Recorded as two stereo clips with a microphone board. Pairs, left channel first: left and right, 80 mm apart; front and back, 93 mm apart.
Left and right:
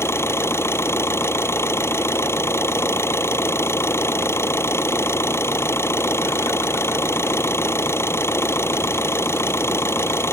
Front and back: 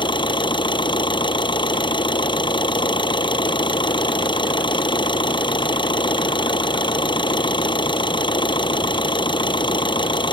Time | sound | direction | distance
0.0 | an engine running | 30° left | ?